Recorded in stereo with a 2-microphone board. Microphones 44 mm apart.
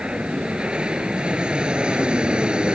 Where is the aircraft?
20° right (ahead or behind).